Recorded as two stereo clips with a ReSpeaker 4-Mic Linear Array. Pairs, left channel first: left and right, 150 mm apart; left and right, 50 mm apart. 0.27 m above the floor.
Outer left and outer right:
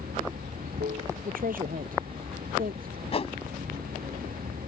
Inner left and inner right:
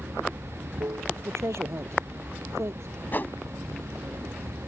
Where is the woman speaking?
75° right (ahead or behind).